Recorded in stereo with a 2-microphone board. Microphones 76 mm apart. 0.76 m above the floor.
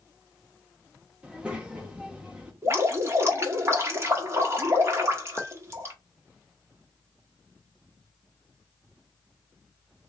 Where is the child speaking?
15° right (ahead or behind), 1.4 m.